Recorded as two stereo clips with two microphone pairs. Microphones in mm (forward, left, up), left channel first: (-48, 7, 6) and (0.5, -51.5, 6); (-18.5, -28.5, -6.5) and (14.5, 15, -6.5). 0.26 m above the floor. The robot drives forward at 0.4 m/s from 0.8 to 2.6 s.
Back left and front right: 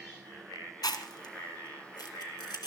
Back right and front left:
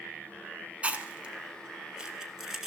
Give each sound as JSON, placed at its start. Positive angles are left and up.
{"t": 0.8, "sound": "chewing", "azimuth_deg": 115, "distance_m": 1.7}